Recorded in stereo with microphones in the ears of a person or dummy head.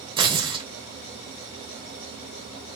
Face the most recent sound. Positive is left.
turn(degrees=-25)  # may be behind; listen again after turning